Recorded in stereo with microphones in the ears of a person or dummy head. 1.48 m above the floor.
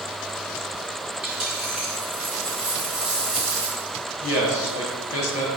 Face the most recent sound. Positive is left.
turn(degrees=80)